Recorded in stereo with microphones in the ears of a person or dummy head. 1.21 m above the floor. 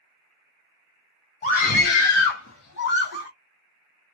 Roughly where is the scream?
Left.